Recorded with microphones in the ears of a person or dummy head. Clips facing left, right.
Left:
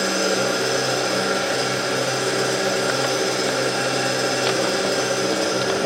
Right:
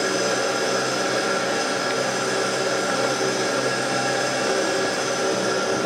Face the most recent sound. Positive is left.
turn(degrees=40)  # may be behind; listen again after turning